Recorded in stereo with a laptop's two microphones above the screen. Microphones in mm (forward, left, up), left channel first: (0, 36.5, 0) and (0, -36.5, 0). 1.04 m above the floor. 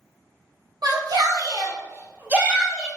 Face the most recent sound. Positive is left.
turn(degrees=-5)  # may be behind; listen again after turning